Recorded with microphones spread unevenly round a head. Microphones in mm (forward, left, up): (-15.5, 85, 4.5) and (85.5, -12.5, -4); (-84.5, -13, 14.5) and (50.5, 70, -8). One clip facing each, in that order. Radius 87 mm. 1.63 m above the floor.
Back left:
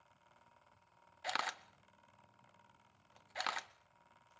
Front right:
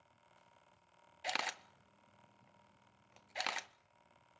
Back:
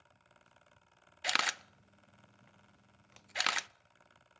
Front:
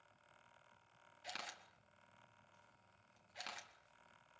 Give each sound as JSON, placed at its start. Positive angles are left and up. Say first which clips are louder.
{"t": 1.2, "sound": "a camera shutter", "louder": "even, back 13 dB", "azimuth_deg": -120, "distance_m": 0.5}